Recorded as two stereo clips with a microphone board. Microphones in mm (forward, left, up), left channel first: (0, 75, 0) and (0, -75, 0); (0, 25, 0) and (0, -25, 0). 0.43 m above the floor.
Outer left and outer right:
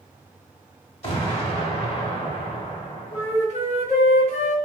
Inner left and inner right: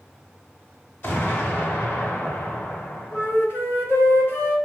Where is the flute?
50° left (ahead or behind), 0.9 m.